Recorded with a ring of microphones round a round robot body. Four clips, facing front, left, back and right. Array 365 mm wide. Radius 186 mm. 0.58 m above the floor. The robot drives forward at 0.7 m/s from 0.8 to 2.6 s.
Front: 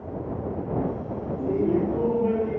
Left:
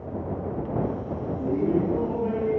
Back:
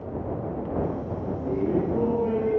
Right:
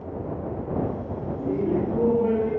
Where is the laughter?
35° right, 1.1 m; by 2.6 s 110° right, 0.9 m.